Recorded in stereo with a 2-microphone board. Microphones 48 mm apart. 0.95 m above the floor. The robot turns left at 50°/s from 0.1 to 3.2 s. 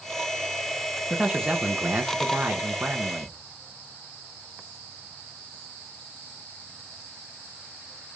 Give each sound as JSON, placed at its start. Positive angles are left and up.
{"t": 1.1, "sound": "a man speaking", "azimuth_deg": -15, "distance_m": 0.9}